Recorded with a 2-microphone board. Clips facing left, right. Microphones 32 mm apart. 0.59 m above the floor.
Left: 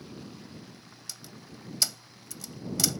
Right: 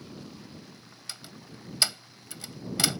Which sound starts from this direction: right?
A door slam, at 1.1 s.